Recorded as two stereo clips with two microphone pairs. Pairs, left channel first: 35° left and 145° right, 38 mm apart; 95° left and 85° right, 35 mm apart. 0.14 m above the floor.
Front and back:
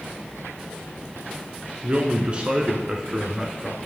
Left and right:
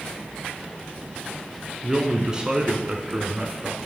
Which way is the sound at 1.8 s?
145° right.